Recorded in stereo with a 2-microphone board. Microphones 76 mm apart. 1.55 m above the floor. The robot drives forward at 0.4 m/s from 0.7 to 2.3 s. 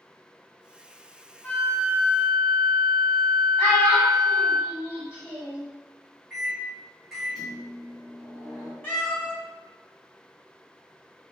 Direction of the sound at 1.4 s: 20° left (ahead or behind).